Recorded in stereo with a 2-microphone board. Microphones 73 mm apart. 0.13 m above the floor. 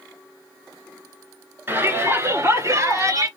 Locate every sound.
1.7 s a shout: 30° right (ahead or behind), 2 m; by 3.3 s 45° right (ahead or behind), 2.5 m